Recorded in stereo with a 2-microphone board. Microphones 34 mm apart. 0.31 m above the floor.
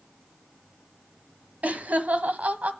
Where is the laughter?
50° right (ahead or behind), 1.5 m.